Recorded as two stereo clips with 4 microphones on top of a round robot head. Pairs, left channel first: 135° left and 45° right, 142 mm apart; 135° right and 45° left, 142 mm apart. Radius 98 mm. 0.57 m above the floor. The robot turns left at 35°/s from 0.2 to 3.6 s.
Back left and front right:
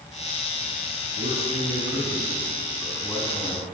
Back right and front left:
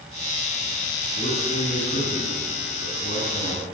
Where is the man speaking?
85° right, 7 m; by 3.6 s 170° right, 7 m.